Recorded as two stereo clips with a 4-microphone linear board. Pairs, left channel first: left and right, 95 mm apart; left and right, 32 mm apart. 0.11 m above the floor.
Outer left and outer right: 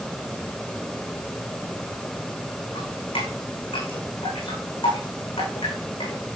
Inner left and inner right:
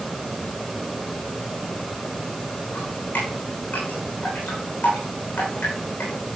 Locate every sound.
2.8 s dripping: 65° left (ahead or behind), 9.5 m